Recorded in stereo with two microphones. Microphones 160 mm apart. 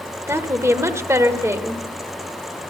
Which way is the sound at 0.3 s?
15° right (ahead or behind).